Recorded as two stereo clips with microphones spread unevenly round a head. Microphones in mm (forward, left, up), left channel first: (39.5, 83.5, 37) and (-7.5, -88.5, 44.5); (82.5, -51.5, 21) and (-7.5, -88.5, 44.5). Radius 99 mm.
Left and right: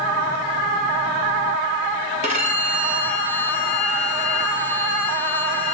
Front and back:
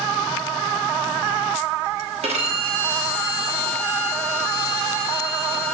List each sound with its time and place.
2.2 s a violin: 160° right, 1.3 m